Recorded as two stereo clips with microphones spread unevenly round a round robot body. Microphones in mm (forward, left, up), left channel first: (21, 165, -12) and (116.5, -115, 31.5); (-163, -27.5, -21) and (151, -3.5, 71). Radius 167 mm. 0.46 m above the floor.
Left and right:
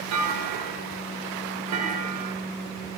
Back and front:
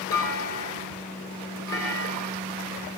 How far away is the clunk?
About 1.8 m.